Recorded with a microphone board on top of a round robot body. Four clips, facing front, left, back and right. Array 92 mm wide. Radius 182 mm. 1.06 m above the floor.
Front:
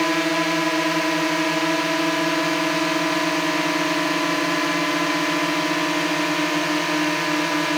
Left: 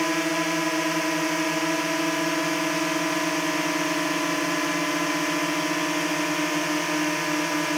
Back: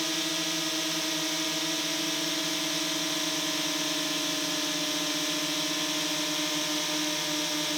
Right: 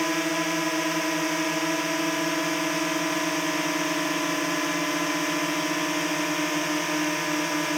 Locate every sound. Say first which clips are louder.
0.0 s a drone: left 1 dB, front 13 dB; 5° left